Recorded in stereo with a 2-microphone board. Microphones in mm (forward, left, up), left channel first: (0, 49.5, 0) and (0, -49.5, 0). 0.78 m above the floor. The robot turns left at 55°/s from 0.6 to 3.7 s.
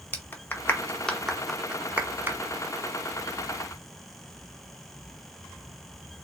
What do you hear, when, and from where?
0.1 s a clap: 20° left (ahead or behind), 0.7 m; by 2.4 s 25° right (ahead or behind), 0.7 m